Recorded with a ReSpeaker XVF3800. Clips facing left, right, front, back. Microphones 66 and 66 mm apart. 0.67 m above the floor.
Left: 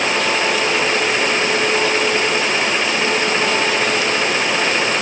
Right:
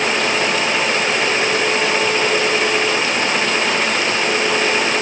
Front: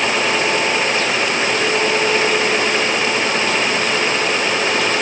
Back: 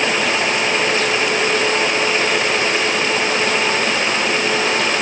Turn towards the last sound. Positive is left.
No sound to turn to.